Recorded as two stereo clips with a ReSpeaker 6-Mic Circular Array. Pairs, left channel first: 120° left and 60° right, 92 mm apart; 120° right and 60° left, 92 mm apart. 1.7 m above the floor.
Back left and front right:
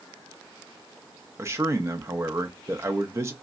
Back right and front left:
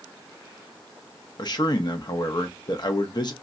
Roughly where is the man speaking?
Right.